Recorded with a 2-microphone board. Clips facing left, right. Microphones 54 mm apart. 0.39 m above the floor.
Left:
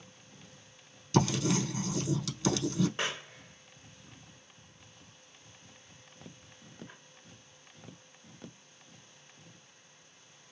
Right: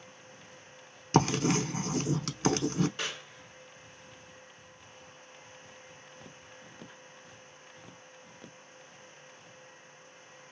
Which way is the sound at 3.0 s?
30° left (ahead or behind).